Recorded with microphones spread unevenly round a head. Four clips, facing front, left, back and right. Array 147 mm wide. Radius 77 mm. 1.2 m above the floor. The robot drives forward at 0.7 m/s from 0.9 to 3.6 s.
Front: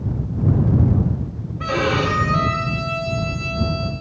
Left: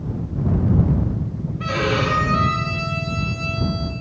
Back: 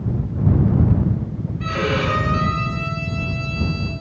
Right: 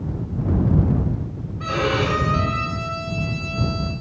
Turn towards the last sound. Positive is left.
turn(degrees=-10)